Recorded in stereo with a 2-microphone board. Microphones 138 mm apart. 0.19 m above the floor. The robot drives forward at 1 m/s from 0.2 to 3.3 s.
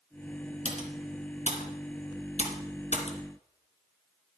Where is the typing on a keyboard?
50° left (ahead or behind), 2.5 m; by 3.2 s 45° left (ahead or behind), 3 m.